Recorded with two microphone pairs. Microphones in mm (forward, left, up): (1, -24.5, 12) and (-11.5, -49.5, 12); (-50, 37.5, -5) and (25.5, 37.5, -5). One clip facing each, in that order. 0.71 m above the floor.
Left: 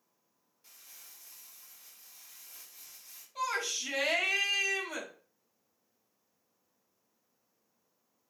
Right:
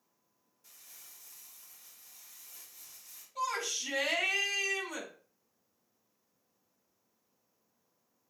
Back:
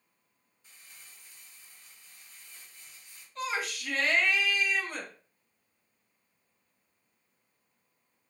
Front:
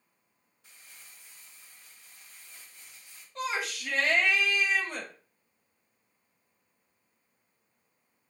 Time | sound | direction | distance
0.6 | crumpling | 15° left | 2.5 m
3.4 | a shout | 20° left | 3 m